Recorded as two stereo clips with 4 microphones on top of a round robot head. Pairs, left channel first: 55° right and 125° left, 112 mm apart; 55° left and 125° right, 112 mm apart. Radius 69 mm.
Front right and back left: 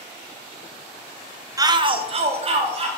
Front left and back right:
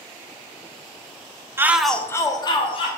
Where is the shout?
175° left, 1.0 m; by 2.9 s 95° left, 1.9 m.